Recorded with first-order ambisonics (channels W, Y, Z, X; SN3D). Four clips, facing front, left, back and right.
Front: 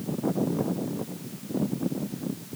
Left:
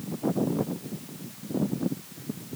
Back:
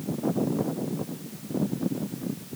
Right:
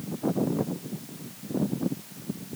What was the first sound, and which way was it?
Only background noise.